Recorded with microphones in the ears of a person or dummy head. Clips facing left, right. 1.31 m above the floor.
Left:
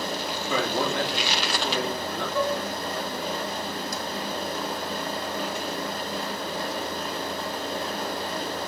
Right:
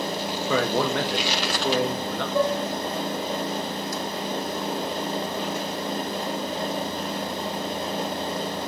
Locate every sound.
0.5 s a man speaking: 45° right (ahead or behind), 1.2 m
2.4 s dishes clattering: 15° right (ahead or behind), 1.9 m